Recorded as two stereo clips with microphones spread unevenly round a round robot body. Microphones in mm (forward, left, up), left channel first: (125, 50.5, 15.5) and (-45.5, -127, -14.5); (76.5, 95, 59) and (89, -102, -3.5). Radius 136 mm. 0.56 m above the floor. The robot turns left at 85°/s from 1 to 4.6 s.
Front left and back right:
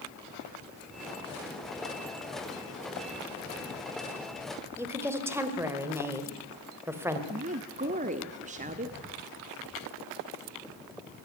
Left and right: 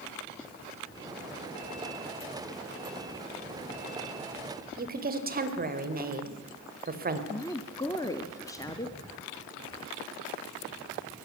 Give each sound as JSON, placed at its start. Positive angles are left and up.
{"t": 4.8, "sound": "a woman speaking", "azimuth_deg": -55, "distance_m": 2.5}
{"t": 7.3, "sound": "a woman speaking", "azimuth_deg": 180, "distance_m": 1.0}